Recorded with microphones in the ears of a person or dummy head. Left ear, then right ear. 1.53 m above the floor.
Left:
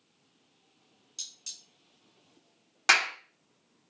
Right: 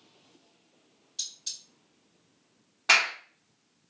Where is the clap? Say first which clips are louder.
Right 1 dB; 75° left (ahead or behind), 0.8 m.